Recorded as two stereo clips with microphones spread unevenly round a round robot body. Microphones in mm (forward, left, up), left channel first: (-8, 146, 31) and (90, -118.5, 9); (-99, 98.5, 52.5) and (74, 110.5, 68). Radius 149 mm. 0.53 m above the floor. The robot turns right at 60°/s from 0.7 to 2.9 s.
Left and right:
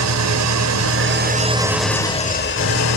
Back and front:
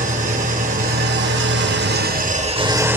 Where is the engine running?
50° right, 1.9 m; by 3.0 s 85° left, 1.9 m.